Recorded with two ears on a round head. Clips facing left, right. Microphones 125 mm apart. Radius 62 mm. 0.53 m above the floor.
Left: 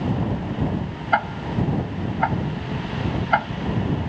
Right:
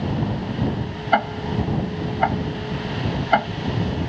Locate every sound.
1.1 s ticking: 40° right (ahead or behind)